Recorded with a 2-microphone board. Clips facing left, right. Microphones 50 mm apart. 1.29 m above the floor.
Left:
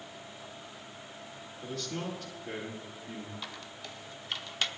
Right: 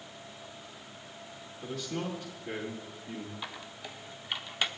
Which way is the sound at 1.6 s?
Centre (ahead or behind).